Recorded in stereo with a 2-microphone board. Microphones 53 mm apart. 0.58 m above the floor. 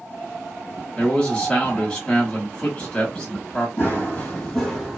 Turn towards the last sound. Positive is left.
turn(degrees=-10)  # may be behind; listen again after turning